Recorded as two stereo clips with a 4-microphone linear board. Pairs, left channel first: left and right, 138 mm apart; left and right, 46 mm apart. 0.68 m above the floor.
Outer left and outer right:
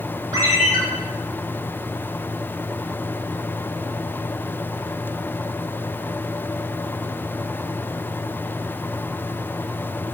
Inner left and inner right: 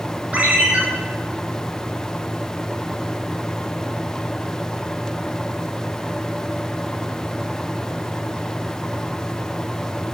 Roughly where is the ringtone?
Right.